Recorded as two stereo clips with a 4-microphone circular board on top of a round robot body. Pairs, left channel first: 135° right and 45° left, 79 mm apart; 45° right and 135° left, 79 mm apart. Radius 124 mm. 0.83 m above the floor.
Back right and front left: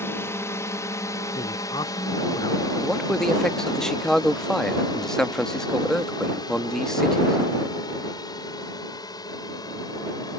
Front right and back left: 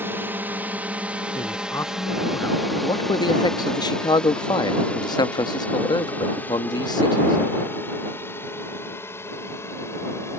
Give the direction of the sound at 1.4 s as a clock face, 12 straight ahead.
3 o'clock.